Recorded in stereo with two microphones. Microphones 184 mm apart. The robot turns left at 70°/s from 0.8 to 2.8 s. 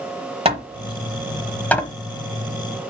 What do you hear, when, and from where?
0.5 s hammering: 35° right (ahead or behind), 1.1 m; by 1.9 s 20° left (ahead or behind), 1.1 m